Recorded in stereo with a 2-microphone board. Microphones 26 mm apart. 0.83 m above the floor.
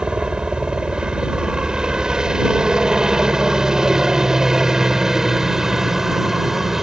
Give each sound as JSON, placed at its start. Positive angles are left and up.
{"t": 0.0, "sound": "a helicopter", "side_deg": -35}